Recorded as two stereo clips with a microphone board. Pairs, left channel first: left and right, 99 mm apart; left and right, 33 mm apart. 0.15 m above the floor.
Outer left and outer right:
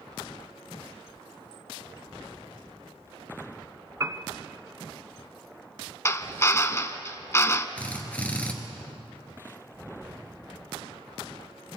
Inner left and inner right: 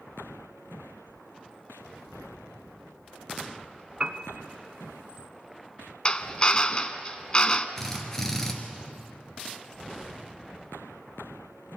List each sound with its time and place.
4.0 s a piano: 35° right (ahead or behind), 1.1 m
6.0 s a drill: 30° left (ahead or behind), 0.9 m
7.8 s a drill: 15° left (ahead or behind), 2.5 m